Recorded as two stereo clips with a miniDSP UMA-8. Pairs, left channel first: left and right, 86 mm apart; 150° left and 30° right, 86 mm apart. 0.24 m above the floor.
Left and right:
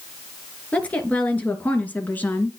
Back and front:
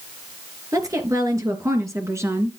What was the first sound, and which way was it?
A woman speaking, 15° left.